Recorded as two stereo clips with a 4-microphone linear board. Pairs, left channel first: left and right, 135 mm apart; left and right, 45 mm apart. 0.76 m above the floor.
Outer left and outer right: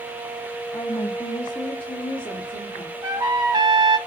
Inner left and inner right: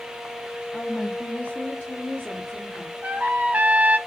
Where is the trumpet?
30° right (ahead or behind), 1.3 m.